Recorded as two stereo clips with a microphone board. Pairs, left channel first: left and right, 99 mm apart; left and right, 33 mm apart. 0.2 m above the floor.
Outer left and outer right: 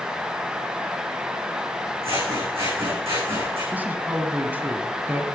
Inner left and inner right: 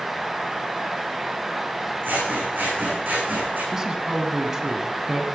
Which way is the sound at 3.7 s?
20° right (ahead or behind).